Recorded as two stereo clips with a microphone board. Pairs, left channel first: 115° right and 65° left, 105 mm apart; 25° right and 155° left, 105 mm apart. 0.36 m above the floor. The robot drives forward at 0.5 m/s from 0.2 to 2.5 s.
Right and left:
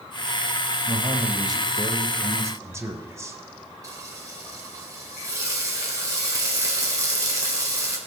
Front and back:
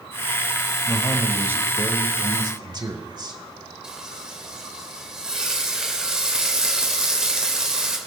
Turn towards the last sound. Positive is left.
turn(degrees=80)